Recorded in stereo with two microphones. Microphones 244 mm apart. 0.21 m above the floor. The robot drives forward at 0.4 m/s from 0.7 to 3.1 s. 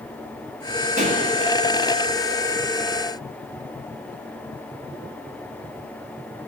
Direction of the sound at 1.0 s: 30° right (ahead or behind).